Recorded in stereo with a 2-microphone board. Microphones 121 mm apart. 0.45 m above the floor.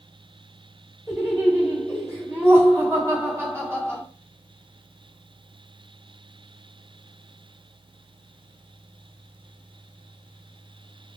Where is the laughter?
20° right (ahead or behind), 1.9 m.